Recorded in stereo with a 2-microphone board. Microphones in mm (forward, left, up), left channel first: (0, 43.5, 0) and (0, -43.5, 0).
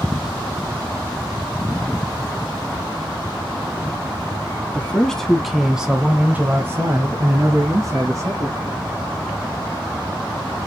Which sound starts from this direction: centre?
A man speaking, at 4.7 s.